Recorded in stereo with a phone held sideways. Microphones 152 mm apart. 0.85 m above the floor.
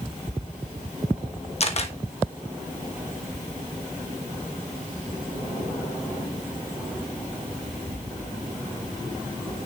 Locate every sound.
1.6 s a camera shutter: 45° left (ahead or behind), 1.1 m